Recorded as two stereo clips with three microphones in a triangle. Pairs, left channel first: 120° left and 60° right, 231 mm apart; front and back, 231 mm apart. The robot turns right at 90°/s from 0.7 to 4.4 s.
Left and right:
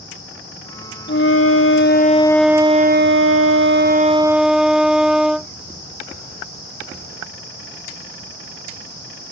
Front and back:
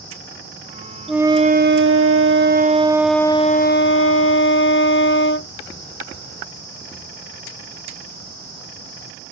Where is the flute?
90° left; by 5.5 s 25° left.